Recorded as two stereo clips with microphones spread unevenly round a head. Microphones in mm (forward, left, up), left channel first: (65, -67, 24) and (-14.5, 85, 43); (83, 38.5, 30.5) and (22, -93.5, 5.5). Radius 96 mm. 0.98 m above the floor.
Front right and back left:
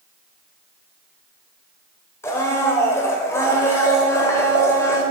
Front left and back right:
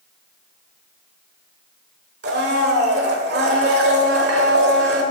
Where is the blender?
140° right, 1.2 m.